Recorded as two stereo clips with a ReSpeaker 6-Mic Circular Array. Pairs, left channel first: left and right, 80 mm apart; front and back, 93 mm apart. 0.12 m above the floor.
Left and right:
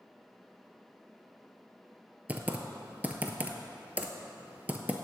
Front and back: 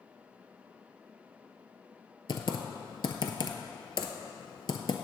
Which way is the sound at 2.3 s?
20° right.